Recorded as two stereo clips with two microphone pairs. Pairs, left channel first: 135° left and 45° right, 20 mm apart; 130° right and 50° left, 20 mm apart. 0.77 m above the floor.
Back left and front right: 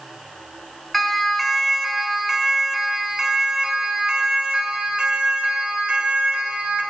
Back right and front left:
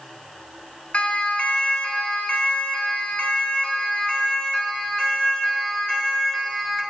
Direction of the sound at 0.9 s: 145° right.